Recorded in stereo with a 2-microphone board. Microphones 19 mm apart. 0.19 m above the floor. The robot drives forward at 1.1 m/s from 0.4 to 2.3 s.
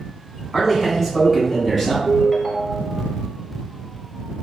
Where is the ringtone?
10° left (ahead or behind), 0.6 m; by 3.0 s 5° left (ahead or behind), 0.7 m.